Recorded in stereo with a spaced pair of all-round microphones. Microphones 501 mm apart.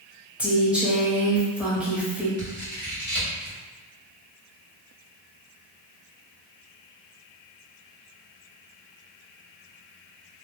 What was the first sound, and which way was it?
A woman speaking, centre (ahead or behind).